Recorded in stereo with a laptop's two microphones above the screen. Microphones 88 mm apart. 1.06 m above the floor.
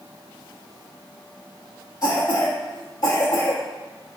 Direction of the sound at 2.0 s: 40° left (ahead or behind).